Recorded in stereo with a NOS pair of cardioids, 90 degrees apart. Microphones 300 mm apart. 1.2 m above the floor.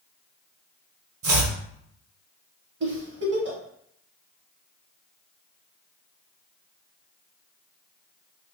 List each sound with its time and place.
1.2 s chopping: 50° right, 0.7 m
2.8 s a giggle: 40° right, 0.9 m